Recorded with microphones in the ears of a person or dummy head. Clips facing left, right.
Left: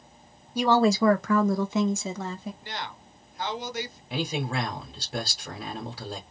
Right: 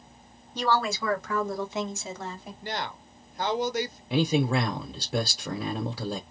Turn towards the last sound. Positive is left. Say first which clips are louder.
# right 6 dB
turn(degrees=-80)